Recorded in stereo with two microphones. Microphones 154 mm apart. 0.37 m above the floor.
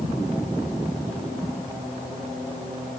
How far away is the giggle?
No giggle in this recording.